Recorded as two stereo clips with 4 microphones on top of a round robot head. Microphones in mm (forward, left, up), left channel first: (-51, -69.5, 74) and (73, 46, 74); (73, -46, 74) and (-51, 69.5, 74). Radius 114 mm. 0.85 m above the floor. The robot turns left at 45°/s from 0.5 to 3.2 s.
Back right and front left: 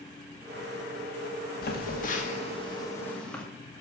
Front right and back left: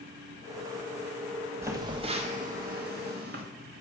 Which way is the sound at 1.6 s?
150° right.